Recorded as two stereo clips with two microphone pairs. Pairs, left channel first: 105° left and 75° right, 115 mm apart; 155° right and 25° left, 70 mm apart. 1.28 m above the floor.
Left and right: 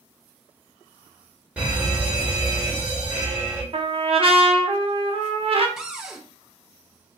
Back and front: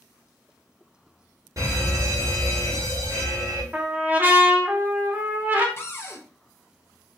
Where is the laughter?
No laughter in this recording.